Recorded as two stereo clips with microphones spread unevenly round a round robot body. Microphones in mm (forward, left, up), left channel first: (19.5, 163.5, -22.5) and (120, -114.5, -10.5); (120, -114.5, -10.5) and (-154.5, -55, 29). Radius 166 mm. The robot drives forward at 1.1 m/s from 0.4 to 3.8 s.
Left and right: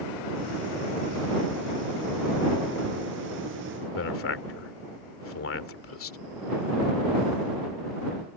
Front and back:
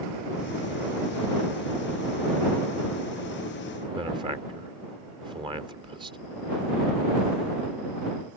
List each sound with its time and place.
4.0 s a man speaking: 90° left